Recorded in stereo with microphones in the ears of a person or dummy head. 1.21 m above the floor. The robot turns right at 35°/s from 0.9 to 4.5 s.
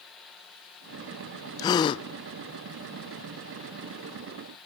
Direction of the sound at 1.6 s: 20° left (ahead or behind).